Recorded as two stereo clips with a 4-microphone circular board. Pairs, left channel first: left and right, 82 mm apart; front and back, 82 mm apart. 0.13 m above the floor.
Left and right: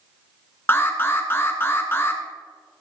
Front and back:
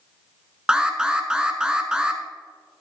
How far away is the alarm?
About 1.1 m.